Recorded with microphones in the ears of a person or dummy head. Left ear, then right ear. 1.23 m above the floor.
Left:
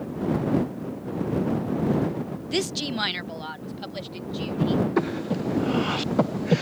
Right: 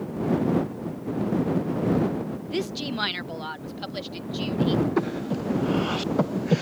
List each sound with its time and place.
2.5 s a woman speaking: 25° left (ahead or behind); by 4.8 s 15° right (ahead or behind)
5.0 s breathing: 15° left (ahead or behind)